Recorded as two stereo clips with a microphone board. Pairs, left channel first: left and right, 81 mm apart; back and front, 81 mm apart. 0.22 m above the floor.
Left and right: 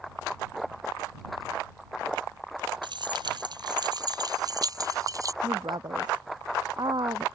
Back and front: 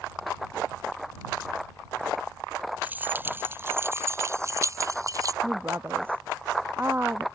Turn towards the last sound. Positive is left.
turn(degrees=-65)